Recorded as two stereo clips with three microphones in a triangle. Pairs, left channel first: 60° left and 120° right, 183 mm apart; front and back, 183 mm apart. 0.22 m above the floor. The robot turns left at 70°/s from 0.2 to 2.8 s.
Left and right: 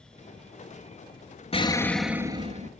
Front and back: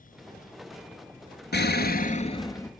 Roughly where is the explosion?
Ahead.